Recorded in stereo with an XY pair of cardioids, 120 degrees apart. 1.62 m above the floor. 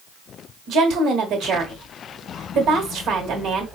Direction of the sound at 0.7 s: 65° right.